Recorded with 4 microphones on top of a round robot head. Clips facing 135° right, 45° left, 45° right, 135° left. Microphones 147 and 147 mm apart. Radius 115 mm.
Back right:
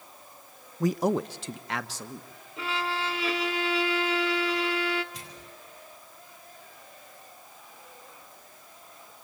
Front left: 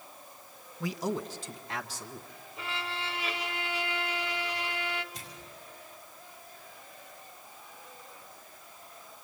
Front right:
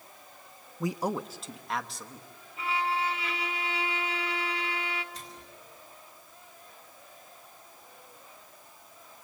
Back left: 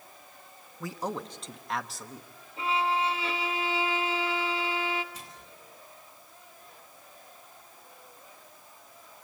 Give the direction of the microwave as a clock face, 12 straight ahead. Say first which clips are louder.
Back right 2 dB, front right 1 dB; 5 o'clock.